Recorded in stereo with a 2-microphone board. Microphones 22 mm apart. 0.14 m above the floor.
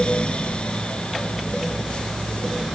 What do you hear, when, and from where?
Only background noise.